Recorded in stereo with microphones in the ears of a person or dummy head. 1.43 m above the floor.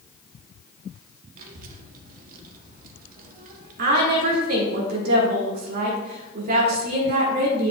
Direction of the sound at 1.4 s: 55° right (ahead or behind).